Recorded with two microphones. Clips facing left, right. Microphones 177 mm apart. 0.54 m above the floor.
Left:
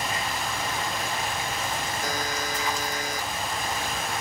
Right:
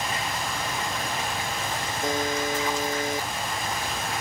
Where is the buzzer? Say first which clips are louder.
Right 4 dB; 25° right (ahead or behind).